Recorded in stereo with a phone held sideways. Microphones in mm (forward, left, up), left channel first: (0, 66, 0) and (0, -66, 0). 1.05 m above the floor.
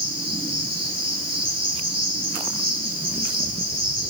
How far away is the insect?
About 3.5 m.